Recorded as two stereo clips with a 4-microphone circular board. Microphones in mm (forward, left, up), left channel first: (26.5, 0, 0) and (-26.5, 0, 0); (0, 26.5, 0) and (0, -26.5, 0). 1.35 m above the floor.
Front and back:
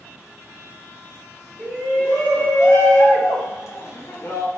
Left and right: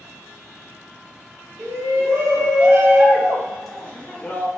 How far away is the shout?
About 1.3 m.